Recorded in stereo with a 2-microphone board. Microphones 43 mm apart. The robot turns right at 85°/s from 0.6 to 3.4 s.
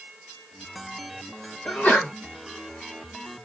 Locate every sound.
1.6 s a sneeze: 115° left, 1.9 m; by 2.1 s 155° left, 1.9 m